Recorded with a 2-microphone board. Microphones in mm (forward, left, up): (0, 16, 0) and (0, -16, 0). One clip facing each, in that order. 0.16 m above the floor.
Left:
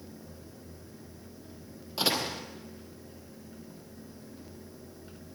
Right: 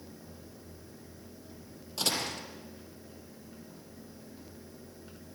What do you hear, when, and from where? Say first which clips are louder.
2.0 s a door slam: left 3 dB; 20° left (ahead or behind), 3.5 m